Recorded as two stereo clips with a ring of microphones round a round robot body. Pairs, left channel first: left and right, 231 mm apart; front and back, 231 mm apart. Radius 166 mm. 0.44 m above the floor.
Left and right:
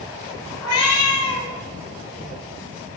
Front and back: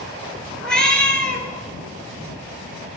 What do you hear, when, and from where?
0.6 s a cat meowing: 85° left, 1.2 m